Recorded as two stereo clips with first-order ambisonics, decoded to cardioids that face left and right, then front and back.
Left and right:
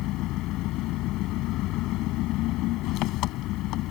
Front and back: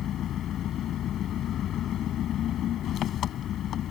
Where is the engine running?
50° left.